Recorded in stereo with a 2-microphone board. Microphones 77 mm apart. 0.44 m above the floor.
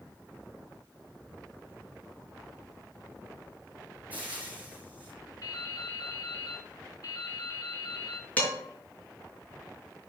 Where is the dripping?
50° left (ahead or behind), 1.3 m.